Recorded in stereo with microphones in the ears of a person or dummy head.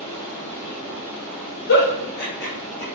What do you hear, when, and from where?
0.0 s running water: 5° right (ahead or behind), 0.8 m
1.7 s a giggle: 70° left (ahead or behind), 0.7 m